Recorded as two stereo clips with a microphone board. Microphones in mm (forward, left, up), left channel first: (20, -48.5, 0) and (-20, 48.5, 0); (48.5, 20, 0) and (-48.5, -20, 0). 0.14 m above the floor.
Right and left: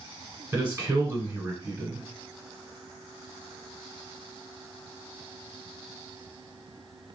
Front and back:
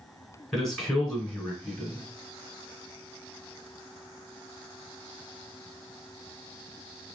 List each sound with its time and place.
0.5 s a man speaking: 100° left, 1.2 m